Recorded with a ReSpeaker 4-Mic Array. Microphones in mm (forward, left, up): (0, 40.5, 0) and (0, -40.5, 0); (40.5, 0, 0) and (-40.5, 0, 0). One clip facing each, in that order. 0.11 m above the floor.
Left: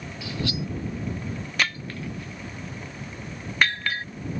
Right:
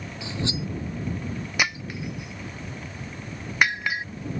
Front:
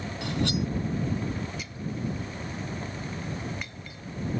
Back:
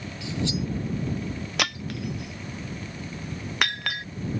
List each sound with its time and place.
0.2 s cutlery clinking: 25° right
1.6 s breaking glass: 170° right